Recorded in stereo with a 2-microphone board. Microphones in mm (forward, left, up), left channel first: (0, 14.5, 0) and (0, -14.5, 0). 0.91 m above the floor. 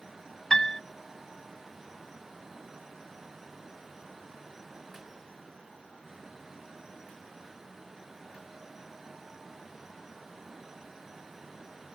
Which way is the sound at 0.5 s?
15° left (ahead or behind).